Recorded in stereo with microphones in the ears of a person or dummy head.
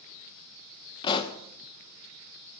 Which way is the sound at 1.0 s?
25° left (ahead or behind).